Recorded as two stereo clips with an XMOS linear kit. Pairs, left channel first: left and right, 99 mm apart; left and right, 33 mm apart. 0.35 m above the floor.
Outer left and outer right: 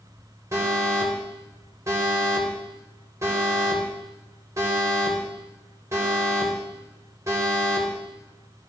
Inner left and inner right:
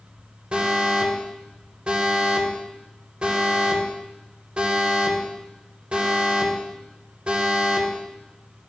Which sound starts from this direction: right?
An alarm, at 0.5 s.